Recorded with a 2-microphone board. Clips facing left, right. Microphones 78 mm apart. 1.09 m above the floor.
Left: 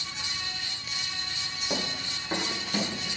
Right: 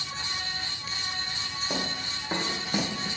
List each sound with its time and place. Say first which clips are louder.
1.7 s running footsteps: left 1 dB; 5° right (ahead or behind), 3 m; by 3.2 s 30° right (ahead or behind), 1.5 m